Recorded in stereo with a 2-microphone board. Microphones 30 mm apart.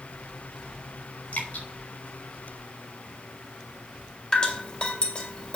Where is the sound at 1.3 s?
75° left (ahead or behind), 4 m.